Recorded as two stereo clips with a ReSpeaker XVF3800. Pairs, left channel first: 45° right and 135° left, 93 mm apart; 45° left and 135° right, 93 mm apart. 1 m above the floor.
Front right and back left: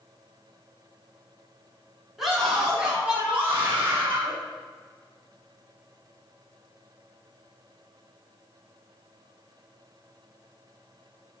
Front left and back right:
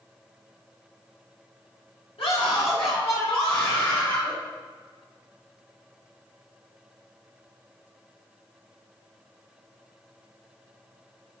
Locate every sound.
2.2 s a scream: 45° left, 2.5 m; by 4.3 s 70° left, 3.5 m